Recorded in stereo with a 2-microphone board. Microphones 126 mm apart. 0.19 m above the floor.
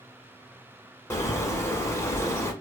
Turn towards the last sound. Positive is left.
turn(degrees=25)  # may be behind; listen again after turning